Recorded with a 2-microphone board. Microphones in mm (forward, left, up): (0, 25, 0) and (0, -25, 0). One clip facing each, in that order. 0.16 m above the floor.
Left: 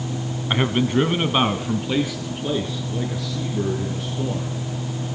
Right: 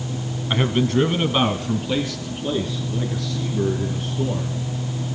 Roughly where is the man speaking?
Centre.